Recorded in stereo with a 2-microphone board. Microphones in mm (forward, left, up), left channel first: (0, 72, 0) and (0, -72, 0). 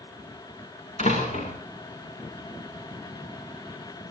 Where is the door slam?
50° left (ahead or behind), 8.5 m.